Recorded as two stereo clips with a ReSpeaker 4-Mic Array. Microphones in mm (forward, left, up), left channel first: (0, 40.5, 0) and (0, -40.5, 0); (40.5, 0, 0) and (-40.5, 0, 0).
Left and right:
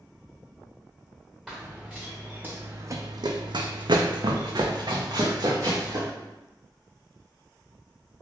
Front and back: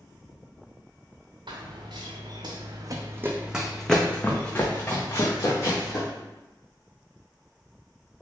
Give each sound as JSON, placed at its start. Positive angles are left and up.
{"t": 1.5, "sound": "running footsteps", "azimuth_deg": 180, "distance_m": 1.1}